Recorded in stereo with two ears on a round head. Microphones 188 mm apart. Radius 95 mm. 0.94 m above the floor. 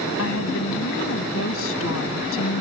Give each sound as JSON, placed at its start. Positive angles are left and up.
{"t": 0.2, "sound": "a woman speaking", "side_deg": 75}